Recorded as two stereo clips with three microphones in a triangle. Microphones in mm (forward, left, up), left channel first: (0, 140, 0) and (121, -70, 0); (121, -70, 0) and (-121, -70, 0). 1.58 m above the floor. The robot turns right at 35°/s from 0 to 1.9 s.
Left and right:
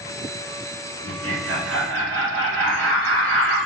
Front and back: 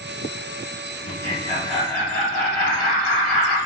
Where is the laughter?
50° right, 0.9 m; by 3.6 s 20° right, 0.9 m.